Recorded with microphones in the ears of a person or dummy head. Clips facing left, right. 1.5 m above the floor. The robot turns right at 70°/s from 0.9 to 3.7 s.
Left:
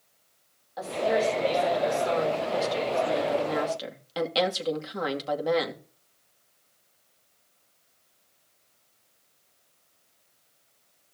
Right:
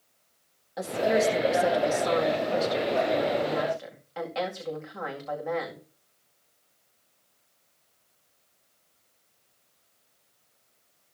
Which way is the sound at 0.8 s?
150° right.